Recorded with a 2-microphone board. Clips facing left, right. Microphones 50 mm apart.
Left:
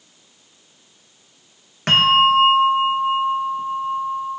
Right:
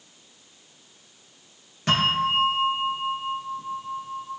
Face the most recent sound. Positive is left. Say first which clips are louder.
# left 8 dB
turn(degrees=55)  # may be behind; listen again after turning